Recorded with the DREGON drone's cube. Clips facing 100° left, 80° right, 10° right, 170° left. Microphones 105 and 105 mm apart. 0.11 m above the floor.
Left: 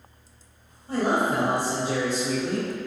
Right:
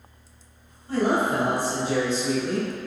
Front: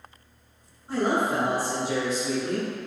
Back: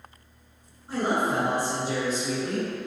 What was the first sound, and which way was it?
A man speaking, 80° left.